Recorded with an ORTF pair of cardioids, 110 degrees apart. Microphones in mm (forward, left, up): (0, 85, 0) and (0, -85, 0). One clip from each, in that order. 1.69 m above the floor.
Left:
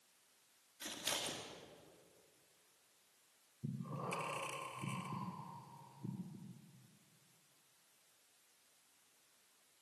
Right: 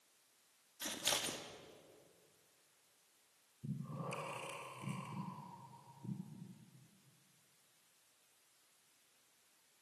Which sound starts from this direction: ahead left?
Breathing, at 3.6 s.